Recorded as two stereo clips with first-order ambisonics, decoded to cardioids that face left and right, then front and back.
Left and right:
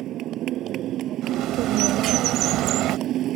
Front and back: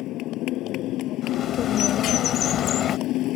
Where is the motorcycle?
40° right.